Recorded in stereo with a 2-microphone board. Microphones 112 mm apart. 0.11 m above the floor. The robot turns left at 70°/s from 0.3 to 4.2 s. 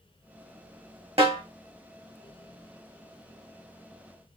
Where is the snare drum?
60° right (ahead or behind), 2 m; by 1.4 s 45° right (ahead or behind), 2 m.